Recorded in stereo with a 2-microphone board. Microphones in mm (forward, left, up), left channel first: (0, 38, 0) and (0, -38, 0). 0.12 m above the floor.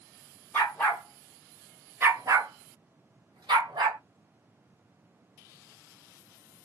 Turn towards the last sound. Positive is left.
turn(degrees=-75)  # may be behind; listen again after turning